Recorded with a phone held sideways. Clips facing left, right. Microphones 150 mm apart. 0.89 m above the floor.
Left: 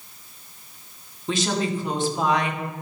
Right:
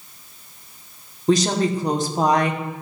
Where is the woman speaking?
40° right (ahead or behind), 1.6 m.